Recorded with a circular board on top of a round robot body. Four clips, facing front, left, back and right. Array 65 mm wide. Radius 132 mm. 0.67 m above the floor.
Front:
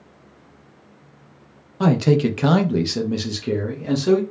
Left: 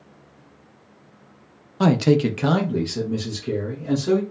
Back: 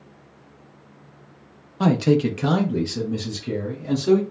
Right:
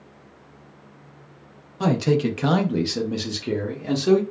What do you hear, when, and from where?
1.8 s a man speaking: 100° left, 0.7 m; by 4.2 s 40° right, 1.3 m